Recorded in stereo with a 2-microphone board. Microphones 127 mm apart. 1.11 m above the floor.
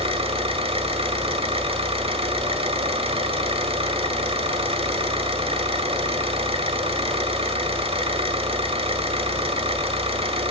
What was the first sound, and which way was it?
An engine running, 50° right (ahead or behind).